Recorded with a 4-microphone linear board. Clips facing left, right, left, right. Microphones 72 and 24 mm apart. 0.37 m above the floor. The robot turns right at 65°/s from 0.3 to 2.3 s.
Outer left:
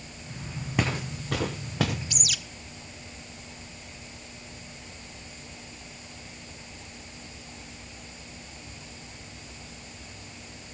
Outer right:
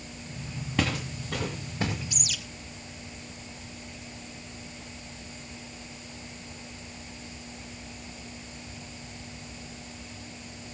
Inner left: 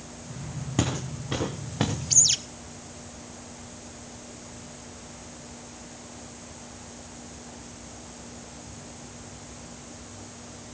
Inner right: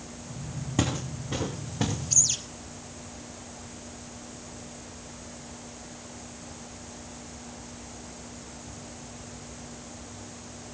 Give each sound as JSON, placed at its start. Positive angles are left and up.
{"t": 0.8, "sound": "footsteps", "side_deg": 10, "distance_m": 1.5}
{"t": 2.1, "sound": "a bird", "side_deg": 70, "distance_m": 0.9}